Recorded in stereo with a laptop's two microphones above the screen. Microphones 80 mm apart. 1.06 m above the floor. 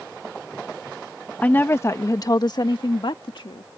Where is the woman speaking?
20° left (ahead or behind); by 3.7 s 75° left (ahead or behind).